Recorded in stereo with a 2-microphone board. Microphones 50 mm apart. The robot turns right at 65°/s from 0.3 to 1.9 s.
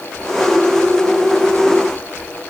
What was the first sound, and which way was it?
Only background noise.